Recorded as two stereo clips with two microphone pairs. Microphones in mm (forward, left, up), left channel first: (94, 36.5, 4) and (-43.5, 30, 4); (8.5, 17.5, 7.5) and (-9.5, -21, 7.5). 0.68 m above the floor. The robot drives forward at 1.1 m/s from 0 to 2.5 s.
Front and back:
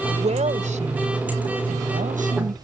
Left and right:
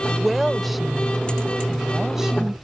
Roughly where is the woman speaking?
Behind left.